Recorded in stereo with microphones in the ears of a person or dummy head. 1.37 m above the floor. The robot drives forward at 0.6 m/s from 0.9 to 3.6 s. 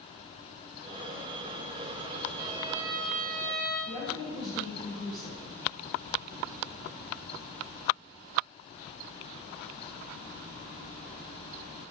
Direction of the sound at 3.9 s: 35° left (ahead or behind).